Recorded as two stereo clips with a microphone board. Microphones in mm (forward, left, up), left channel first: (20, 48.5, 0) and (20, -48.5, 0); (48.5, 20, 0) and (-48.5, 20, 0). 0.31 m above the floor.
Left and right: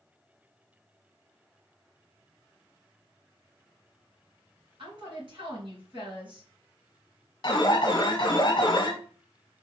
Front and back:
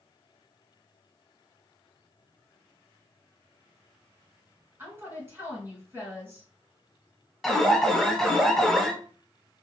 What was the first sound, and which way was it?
A woman speaking, 115° right.